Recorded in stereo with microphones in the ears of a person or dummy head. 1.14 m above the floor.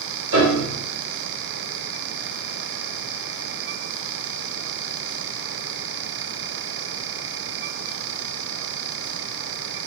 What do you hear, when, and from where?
0.3 s a piano: 70° right (ahead or behind), 1.8 m